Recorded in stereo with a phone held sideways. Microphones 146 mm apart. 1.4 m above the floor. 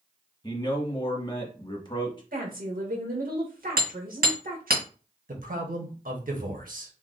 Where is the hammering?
85° right, 1.6 m.